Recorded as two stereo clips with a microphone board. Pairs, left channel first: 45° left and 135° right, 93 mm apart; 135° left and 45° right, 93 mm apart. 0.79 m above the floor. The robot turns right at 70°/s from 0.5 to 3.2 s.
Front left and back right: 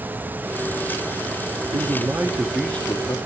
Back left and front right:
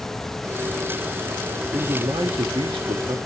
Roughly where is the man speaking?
Right.